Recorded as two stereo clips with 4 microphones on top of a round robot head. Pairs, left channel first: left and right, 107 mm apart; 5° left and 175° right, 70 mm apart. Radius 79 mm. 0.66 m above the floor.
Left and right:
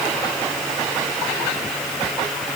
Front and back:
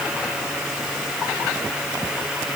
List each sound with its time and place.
Only background noise.